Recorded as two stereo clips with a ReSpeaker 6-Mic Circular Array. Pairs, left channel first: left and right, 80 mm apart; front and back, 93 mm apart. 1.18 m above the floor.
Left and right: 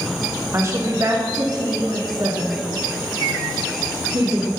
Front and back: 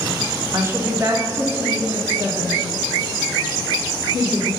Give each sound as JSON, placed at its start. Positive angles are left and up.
{"t": 0.5, "sound": "a woman speaking", "azimuth_deg": -130, "distance_m": 0.8}